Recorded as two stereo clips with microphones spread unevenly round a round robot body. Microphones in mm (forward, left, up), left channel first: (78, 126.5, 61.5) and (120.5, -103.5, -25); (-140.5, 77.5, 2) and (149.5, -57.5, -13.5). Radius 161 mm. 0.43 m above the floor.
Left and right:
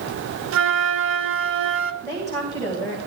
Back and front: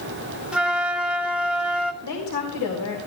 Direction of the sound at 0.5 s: 110° right.